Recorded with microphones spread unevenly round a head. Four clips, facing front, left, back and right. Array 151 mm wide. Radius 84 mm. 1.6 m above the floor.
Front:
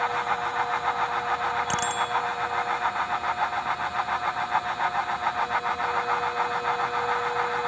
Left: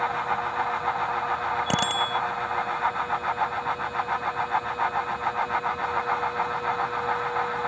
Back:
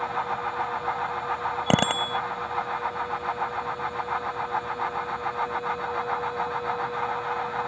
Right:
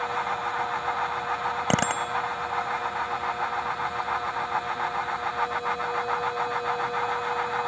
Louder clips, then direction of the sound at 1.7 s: Even, back 2 dB; 170° right.